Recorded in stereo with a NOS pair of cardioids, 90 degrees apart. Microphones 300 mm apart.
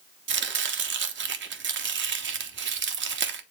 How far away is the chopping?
About 1.1 m.